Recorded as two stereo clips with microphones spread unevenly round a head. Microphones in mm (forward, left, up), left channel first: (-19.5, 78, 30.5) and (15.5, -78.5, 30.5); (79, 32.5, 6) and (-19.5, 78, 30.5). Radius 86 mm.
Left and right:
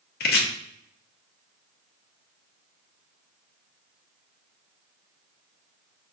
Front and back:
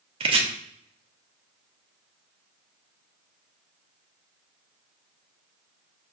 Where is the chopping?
135° left, 0.7 m.